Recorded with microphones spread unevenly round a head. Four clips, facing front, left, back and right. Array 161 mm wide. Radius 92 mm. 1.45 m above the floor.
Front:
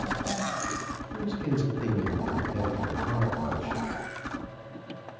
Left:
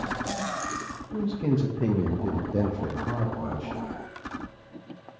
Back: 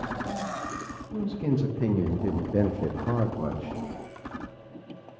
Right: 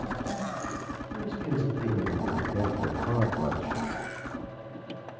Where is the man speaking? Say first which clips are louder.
Left 6 dB, back 3 dB; 115° left, 2 m; by 3.8 s 125° right, 1.4 m.